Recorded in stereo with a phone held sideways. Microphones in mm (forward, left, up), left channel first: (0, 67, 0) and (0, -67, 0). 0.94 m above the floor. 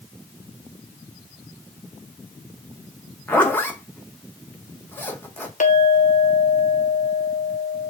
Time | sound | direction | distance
3.3 | a zipper | 15° left (ahead or behind) | 0.8 m
5.6 | a clink | 70° left (ahead or behind) | 0.7 m